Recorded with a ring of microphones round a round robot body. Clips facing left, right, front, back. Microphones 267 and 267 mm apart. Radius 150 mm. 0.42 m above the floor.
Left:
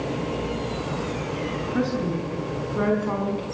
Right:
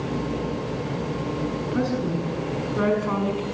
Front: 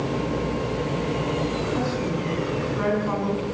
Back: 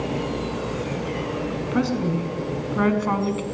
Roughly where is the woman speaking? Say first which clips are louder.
Left 1 dB, back 3 dB; behind.